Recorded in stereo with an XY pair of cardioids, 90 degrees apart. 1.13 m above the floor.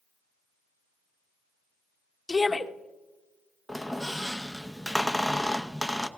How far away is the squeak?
About 0.8 m.